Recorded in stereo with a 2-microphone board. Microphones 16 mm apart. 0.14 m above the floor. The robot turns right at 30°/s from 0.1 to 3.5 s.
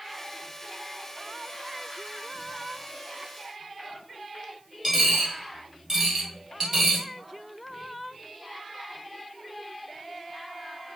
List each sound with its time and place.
4.8 s a dropped coin: 25° right (ahead or behind), 1.4 m